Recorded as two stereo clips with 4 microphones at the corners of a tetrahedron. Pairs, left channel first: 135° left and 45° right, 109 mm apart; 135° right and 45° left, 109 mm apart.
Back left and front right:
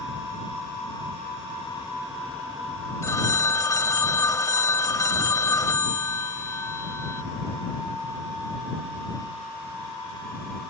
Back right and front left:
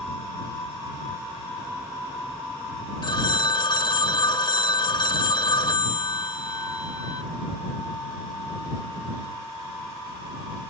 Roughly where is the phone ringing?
Behind.